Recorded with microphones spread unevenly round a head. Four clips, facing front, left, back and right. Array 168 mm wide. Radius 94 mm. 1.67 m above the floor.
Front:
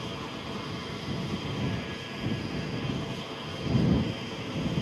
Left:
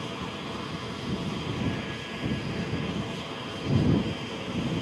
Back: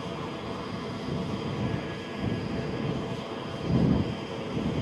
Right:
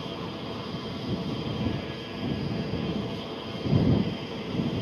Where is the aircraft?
150° right.